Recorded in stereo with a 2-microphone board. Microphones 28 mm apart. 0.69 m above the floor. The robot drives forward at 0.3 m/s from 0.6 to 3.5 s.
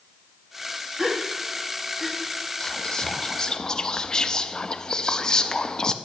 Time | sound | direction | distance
1.0 | a gasp | 15° right (ahead or behind) | 1.3 m
2.6 | whispering | 20° left (ahead or behind) | 0.7 m